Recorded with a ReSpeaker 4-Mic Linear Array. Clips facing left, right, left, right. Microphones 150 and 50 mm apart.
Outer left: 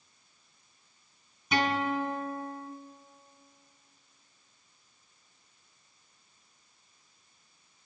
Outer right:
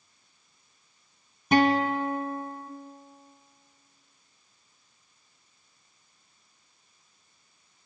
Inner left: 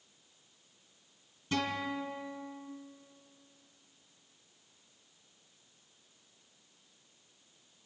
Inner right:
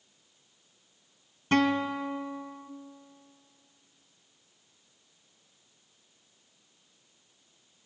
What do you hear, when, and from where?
1.5 s a guitar: 50° right (ahead or behind), 1.6 m